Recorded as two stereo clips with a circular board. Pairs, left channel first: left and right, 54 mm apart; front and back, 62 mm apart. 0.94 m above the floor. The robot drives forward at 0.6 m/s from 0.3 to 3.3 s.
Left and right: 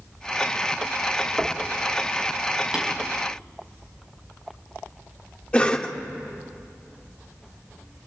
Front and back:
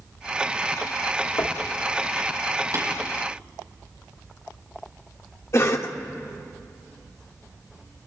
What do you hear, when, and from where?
1.4 s knocking: 20° right, 1.5 m
2.7 s tapping: 165° right, 4.5 m
5.5 s a cough: 30° left, 1.5 m